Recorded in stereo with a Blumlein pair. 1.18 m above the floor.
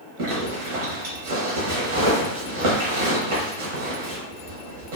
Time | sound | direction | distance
0.2 | a zipper | 55° right | 1.1 m